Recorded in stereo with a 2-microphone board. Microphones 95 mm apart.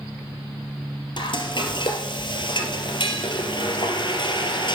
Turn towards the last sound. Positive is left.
turn(degrees=55)  # may be behind; listen again after turning